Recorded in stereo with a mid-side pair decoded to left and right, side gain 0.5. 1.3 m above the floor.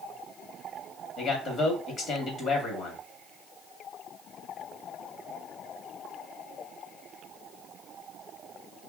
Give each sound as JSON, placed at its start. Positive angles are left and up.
{"t": 1.2, "sound": "a man speaking", "azimuth_deg": 55, "distance_m": 1.4}